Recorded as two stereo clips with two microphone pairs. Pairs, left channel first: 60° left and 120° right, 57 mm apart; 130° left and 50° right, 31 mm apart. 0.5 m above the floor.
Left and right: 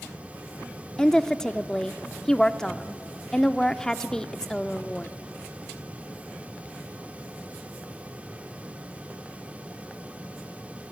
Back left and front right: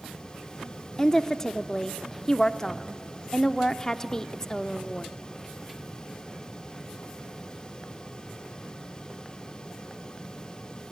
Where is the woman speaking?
120° left, 0.6 m.